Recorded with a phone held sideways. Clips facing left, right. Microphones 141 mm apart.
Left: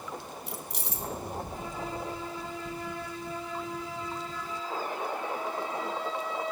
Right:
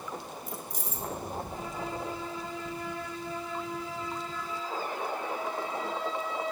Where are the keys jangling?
75° left (ahead or behind), 1.1 m.